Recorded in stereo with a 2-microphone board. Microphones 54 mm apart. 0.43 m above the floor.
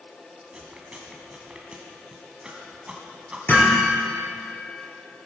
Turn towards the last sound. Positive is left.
turn(degrees=35)  # may be behind; listen again after turning